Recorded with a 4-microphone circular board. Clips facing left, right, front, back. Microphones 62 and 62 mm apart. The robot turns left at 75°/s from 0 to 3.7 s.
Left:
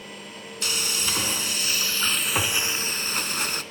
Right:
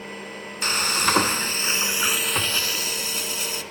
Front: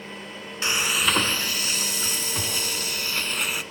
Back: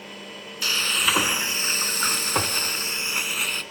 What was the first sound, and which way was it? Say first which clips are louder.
Frying: right 7 dB, front 1 dB; 55° right.